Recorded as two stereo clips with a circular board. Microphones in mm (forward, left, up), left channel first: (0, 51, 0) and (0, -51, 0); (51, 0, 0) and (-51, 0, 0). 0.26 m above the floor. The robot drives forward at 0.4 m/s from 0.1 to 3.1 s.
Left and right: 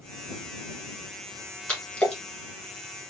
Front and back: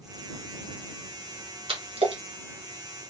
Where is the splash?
170° left, 1.6 m.